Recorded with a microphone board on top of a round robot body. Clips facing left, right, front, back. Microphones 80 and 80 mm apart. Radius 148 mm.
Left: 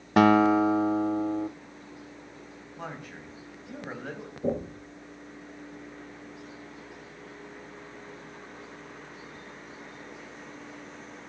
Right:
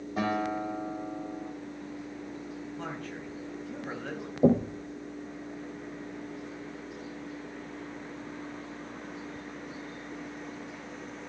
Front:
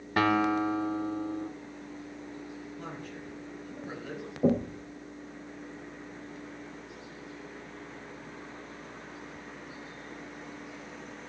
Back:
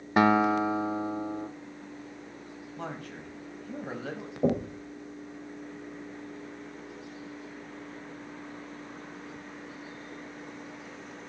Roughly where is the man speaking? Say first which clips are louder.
Left 2 dB, back 2 dB; behind.